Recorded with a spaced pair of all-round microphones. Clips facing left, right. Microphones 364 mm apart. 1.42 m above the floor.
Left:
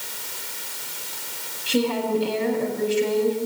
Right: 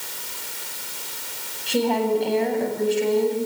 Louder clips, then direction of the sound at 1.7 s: Right 1 dB; 15° left (ahead or behind).